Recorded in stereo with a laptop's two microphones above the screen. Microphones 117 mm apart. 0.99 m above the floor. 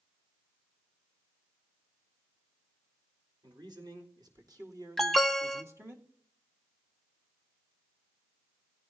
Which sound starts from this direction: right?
A man speaking, at 3.4 s.